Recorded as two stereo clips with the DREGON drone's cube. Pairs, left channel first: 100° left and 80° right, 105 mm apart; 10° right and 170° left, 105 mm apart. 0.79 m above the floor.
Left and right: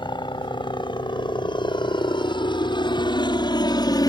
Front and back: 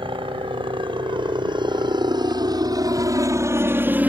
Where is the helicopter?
140° left; by 4.1 s 100° left.